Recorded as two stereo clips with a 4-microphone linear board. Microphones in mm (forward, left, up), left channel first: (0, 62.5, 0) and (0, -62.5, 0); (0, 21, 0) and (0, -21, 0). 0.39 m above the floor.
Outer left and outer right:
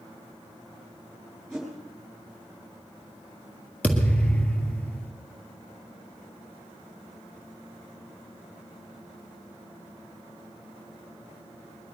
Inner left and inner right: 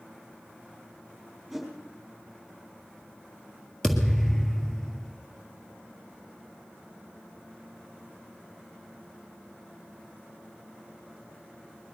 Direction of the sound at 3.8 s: 10° left (ahead or behind).